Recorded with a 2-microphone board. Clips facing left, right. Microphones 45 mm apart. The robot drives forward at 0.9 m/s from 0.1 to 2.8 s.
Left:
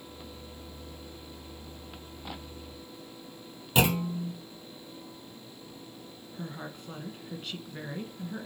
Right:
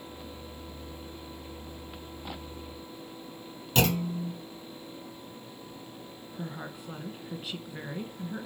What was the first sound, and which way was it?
A clunk, 15° left (ahead or behind).